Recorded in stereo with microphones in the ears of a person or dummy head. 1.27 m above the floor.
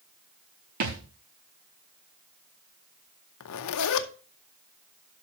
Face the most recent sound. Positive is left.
turn(degrees=70)  # may be behind; listen again after turning